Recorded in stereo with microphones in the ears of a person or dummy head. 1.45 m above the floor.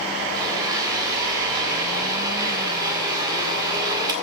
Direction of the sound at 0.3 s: 25° right (ahead or behind).